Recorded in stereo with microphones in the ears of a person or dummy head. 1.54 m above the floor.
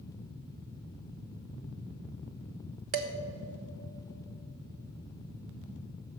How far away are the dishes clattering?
About 0.7 m.